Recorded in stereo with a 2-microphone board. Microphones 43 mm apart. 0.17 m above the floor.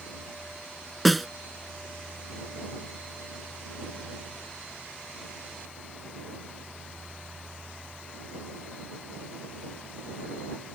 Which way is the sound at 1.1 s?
Centre (ahead or behind).